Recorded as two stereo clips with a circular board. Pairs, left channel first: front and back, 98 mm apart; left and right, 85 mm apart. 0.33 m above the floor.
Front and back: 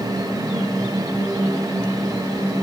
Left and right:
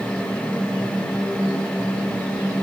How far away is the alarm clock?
No alarm clock in this recording.